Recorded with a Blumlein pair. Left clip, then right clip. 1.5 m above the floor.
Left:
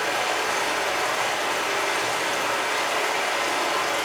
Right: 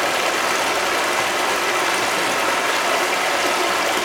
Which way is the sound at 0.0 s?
50° right.